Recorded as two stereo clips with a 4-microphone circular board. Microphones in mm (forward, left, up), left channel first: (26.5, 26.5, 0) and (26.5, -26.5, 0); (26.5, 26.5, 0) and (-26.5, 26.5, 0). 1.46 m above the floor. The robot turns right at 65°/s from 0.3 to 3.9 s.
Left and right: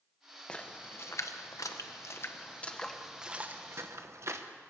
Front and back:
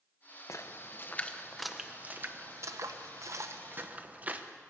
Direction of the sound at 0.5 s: 15° left.